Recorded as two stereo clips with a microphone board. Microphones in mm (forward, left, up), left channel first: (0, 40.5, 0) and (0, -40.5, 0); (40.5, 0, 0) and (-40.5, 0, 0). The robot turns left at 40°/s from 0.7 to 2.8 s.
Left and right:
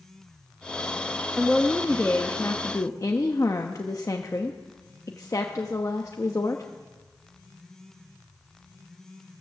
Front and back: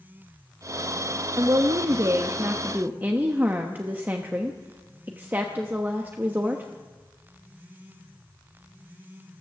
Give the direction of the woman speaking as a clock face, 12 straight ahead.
6 o'clock.